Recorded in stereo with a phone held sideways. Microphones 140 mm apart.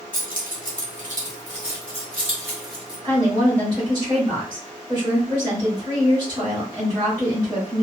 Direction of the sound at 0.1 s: 80° right.